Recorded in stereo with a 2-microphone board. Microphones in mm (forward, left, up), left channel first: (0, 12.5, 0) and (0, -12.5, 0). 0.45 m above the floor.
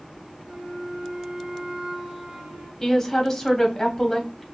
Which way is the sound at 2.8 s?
15° left (ahead or behind).